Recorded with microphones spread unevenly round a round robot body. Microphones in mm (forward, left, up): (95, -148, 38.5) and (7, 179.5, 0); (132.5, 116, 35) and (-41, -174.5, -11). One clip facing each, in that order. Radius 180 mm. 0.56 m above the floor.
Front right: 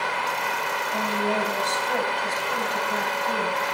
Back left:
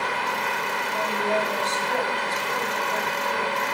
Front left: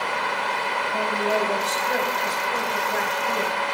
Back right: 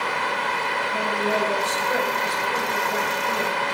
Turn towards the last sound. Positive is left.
turn(degrees=-35)